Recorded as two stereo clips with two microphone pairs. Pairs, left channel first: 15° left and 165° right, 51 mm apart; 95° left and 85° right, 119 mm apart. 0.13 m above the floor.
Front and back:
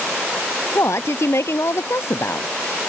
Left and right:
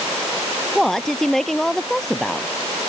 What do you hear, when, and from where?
0.8 s a woman speaking: 10° left